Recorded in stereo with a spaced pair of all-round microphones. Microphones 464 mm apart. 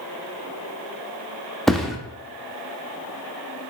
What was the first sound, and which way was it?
A thud, centre (ahead or behind).